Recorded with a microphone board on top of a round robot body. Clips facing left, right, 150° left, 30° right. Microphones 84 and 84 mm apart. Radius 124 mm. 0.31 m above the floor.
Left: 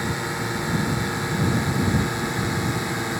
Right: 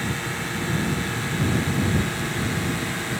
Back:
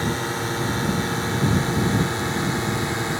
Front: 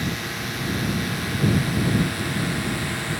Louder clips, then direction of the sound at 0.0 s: Left 2 dB, back 4 dB; 150° left.